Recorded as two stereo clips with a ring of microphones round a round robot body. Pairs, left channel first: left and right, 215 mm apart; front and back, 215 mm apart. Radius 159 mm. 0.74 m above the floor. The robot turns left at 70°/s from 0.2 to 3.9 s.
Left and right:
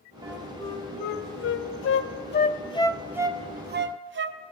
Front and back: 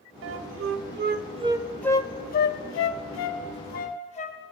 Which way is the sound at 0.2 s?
165° right.